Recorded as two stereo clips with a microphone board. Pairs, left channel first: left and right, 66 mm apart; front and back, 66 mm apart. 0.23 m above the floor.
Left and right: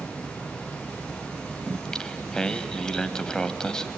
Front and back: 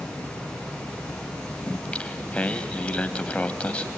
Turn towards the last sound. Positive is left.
turn(degrees=30)